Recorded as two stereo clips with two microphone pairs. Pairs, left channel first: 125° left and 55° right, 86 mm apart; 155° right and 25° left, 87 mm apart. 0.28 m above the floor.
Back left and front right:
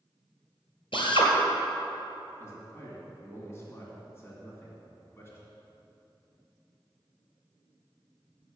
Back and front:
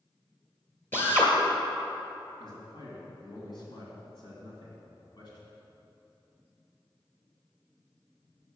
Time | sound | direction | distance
0.9 | a drill | 140° left | 2 m
2.4 | a man speaking | 175° right | 2.5 m